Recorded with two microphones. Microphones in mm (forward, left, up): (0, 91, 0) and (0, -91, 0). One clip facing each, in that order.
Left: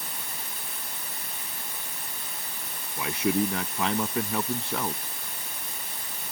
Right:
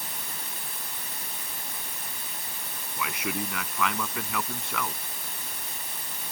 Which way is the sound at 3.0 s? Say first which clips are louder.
Left 7 dB; 30° left (ahead or behind).